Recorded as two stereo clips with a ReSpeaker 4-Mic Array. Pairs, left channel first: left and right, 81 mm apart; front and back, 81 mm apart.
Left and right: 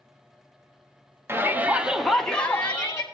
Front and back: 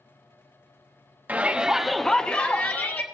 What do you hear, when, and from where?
1.3 s a shout: 125° right, 0.9 m; by 3.0 s 40° left, 1.0 m